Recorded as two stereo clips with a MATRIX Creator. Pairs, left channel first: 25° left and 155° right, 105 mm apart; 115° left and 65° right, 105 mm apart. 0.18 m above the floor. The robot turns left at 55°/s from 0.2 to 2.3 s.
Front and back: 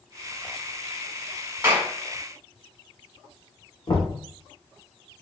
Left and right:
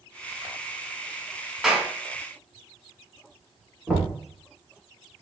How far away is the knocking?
About 1.6 m.